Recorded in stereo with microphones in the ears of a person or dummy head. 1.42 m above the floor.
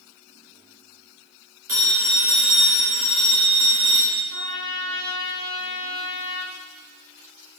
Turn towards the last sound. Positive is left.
turn(degrees=-35)  # may be behind; listen again after turning